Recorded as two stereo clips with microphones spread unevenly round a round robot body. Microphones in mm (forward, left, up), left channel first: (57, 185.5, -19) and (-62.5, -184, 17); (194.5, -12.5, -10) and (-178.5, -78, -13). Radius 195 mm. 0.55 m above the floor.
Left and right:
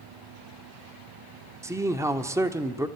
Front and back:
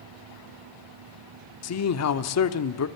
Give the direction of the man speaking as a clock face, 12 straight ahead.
1 o'clock.